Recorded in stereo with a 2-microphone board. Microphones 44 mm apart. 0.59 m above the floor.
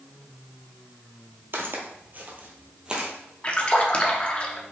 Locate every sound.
1.5 s footsteps: 60° right (ahead or behind), 1.0 m; by 3.1 s 20° right (ahead or behind), 1.2 m
3.4 s a splash: 30° left (ahead or behind), 0.6 m